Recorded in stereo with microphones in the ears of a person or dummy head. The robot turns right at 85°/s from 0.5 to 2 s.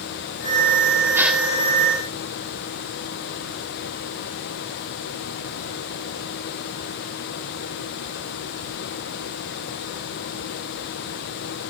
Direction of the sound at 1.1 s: 15° right (ahead or behind).